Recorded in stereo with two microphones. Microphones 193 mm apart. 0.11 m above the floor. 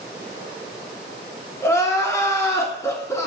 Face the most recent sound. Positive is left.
turn(degrees=15)  # may be behind; listen again after turning